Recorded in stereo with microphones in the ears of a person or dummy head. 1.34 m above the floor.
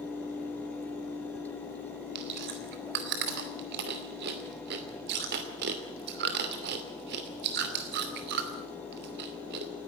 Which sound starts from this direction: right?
Chewing, at 2.1 s.